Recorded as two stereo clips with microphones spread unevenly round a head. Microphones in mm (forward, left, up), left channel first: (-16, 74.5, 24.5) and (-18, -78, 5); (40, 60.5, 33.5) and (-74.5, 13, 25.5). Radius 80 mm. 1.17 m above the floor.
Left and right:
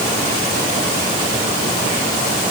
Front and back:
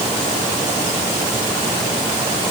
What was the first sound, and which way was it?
Only background noise.